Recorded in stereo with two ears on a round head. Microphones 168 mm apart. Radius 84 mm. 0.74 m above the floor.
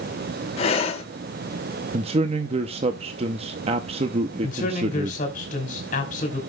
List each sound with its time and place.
0.6 s breathing: 35° left (ahead or behind), 1.6 m
1.9 s a man speaking: 30° right (ahead or behind), 0.7 m
4.4 s a man speaking: 45° left (ahead or behind), 3 m